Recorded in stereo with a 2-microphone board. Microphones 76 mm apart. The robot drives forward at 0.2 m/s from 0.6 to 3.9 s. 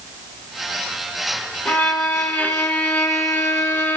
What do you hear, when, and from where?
1.6 s a violin: 20° left (ahead or behind), 0.8 m; by 4.0 s 30° left (ahead or behind), 0.6 m